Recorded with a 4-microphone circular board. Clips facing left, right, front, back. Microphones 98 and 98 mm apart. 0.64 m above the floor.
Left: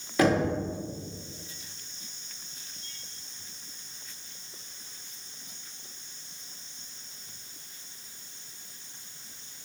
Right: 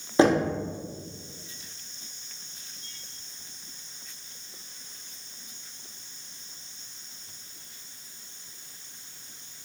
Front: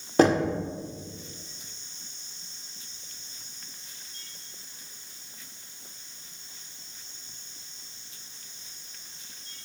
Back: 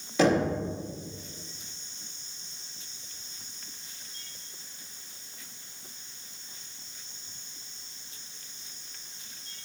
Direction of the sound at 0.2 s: 35° right.